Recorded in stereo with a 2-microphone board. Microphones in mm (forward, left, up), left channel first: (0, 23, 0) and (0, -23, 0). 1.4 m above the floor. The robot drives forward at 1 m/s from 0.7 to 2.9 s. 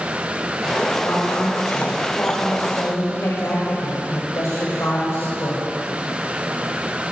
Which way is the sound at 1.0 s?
75° left (ahead or behind).